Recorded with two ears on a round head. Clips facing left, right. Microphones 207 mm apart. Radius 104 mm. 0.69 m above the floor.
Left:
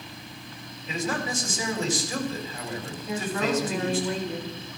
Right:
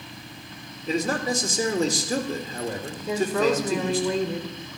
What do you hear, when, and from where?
0.9 s a man speaking: 35° right (ahead or behind), 2.5 m
3.1 s a woman speaking: 70° right (ahead or behind), 2.5 m